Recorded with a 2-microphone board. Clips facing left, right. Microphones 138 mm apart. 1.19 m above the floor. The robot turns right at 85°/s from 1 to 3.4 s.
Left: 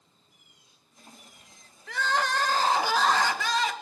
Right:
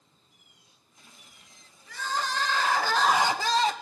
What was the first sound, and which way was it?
Crying, 80° left.